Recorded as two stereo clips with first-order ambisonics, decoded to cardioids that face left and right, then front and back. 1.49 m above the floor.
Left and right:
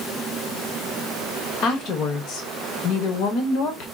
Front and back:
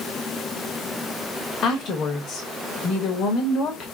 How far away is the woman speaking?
About 0.8 m.